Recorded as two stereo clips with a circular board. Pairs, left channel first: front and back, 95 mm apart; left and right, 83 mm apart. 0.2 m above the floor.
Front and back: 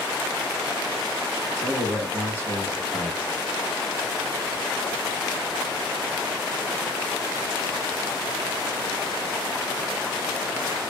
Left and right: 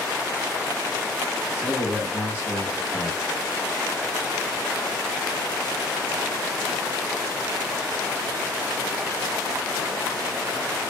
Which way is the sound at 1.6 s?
50° left.